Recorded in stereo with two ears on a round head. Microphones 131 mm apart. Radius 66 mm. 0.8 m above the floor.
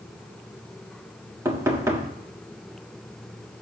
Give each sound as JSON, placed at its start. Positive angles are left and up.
{"t": 1.4, "sound": "knocking", "side_deg": -20, "distance_m": 1.5}